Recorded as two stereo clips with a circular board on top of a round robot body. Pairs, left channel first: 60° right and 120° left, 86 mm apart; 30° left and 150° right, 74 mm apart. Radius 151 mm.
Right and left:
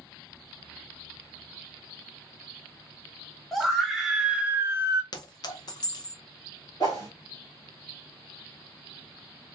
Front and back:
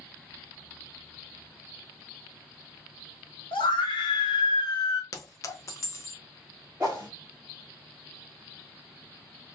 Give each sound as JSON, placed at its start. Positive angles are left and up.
{"t": 3.5, "sound": "a scream", "azimuth_deg": 30, "distance_m": 1.3}
{"t": 5.1, "sound": "a clink", "azimuth_deg": -20, "distance_m": 0.6}
{"t": 6.8, "sound": "a whoosh", "azimuth_deg": -95, "distance_m": 0.6}